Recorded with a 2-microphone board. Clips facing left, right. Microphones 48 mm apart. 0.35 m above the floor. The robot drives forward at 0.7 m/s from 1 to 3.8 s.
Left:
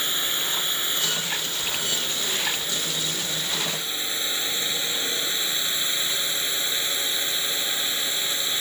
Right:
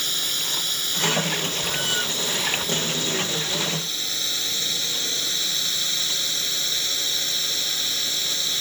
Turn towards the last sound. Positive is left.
turn(degrees=20)  # may be behind; listen again after turning